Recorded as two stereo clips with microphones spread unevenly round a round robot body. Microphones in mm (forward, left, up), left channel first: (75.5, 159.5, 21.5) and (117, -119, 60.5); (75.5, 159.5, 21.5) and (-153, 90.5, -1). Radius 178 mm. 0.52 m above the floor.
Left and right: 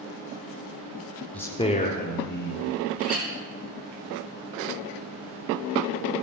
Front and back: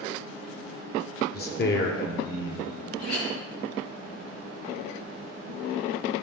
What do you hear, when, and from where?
1.3 s a man speaking: 30° left, 1.0 m; by 2.6 s 60° left, 1.9 m
3.0 s a clink: 20° right, 4.5 m